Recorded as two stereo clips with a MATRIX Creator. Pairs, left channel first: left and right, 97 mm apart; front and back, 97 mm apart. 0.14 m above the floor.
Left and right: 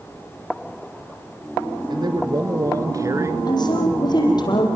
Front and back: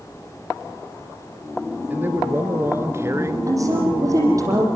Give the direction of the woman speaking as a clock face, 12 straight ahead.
8 o'clock.